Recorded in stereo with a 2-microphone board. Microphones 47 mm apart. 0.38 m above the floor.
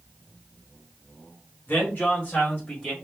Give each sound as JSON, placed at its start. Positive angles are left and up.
{"t": 1.7, "sound": "a man speaking", "side_deg": 50, "distance_m": 1.8}